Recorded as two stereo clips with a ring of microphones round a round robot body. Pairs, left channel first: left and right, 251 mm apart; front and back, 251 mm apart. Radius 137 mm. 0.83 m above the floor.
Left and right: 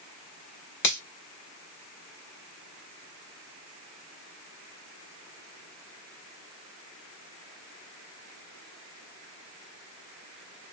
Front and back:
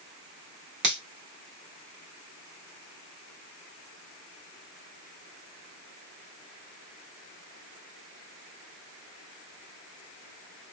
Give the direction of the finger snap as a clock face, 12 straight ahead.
8 o'clock.